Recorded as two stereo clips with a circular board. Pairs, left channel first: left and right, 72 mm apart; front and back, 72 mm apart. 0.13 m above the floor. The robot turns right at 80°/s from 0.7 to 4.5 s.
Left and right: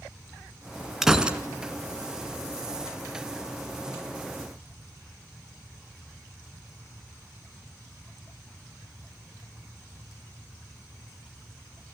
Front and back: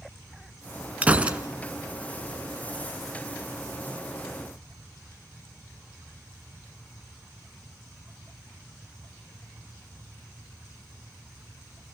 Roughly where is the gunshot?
Behind.